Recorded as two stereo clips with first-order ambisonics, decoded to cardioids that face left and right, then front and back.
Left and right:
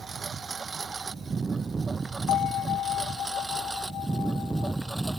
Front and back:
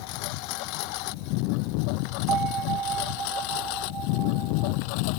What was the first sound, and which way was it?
A lawn mower, 20° right.